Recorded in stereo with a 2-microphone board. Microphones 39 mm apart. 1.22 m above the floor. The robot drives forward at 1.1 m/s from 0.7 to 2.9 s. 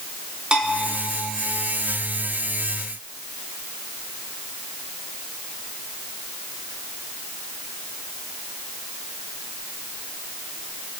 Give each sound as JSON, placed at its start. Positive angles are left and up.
{"t": 0.5, "sound": "a bell", "side_deg": -25, "distance_m": 3.5}